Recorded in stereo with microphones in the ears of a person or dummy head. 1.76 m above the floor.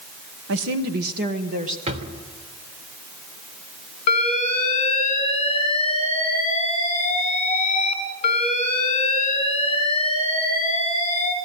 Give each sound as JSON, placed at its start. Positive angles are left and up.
{"t": 0.5, "sound": "a woman speaking", "side_deg": -60, "distance_m": 1.2}
{"t": 1.9, "sound": "a drawer", "side_deg": -35, "distance_m": 3.0}
{"t": 4.1, "sound": "an alarm", "side_deg": 35, "distance_m": 4.5}